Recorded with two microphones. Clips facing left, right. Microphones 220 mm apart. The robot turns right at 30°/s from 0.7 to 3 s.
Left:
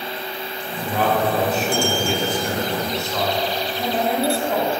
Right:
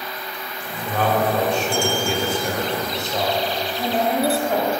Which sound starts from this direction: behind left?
A man speaking, at 0.8 s.